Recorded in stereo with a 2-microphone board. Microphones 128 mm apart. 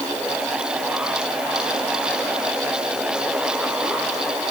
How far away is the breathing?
I don't hear breathing.